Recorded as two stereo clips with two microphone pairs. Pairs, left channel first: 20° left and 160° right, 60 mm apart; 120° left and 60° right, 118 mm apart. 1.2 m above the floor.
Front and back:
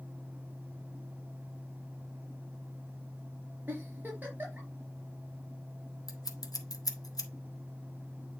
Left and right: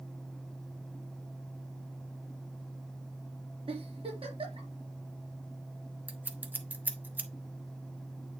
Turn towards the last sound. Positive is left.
turn(degrees=15)